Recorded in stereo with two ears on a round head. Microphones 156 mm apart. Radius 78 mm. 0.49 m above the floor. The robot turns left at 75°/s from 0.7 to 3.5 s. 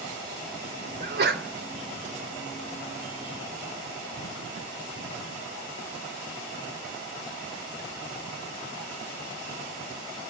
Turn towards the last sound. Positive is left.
turn(degrees=105)